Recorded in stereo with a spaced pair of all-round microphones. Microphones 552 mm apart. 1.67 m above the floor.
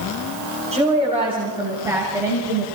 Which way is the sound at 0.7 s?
10° right (ahead or behind).